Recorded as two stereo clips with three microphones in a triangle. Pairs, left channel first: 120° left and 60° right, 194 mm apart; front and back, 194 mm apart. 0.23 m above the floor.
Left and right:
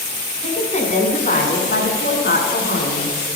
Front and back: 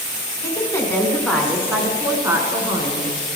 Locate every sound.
0.4 s a woman speaking: 70° left, 1.6 m; by 3.1 s 115° left, 2 m